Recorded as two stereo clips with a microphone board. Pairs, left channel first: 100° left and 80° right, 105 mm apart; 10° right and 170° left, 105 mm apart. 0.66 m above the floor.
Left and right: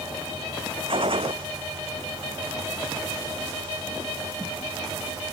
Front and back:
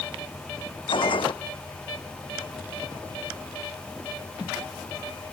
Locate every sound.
0.9 s a gunshot: 50° right